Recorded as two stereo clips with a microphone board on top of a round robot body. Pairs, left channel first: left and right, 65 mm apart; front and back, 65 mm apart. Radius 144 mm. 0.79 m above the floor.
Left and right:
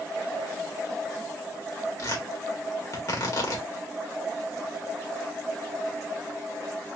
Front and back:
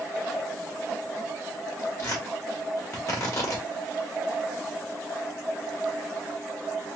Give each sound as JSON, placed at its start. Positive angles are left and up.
{"t": 2.0, "sound": "tearing paper", "azimuth_deg": 50, "distance_m": 1.8}